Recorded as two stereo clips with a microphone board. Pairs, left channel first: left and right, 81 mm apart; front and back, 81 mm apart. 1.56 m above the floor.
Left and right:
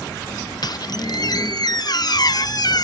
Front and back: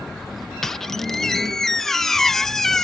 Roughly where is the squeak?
Left.